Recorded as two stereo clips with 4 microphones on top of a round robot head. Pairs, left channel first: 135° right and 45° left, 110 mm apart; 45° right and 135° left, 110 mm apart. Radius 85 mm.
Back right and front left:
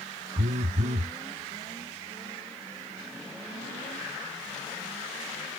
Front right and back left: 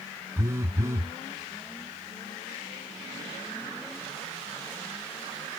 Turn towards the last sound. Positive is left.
turn(degrees=65)